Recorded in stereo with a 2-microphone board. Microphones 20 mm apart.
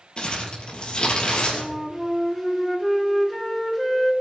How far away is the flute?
About 1.4 m.